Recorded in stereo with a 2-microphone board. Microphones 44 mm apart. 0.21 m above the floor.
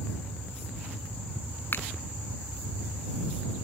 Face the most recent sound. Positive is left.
turn(degrees=55)  # may be behind; listen again after turning